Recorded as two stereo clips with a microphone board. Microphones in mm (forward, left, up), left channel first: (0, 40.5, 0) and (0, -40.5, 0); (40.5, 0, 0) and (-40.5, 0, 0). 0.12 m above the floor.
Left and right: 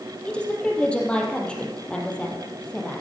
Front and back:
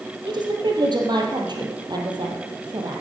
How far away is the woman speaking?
About 3.5 m.